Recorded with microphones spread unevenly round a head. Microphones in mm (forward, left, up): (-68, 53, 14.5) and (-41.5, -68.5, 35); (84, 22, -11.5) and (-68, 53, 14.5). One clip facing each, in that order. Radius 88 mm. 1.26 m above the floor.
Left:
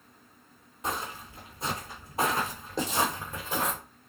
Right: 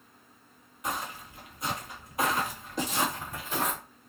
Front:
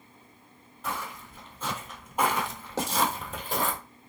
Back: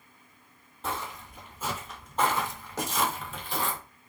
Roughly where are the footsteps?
Behind.